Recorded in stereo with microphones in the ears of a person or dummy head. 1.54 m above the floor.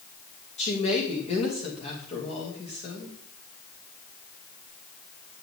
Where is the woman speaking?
35° left (ahead or behind), 2.5 m.